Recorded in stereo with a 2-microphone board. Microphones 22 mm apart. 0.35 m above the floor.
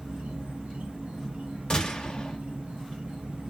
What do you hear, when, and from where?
0.0 s an insect: 75° right (ahead or behind), 1.1 m
1.7 s a gunshot: 35° left (ahead or behind), 1.3 m